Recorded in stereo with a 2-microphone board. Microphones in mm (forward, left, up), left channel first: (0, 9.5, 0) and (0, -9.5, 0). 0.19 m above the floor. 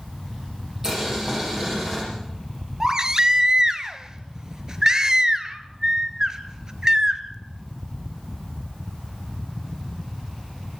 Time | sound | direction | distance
0.8 | boiling | 30° right (ahead or behind) | 9.5 m
2.8 | a baby crying | 35° right (ahead or behind) | 1.1 m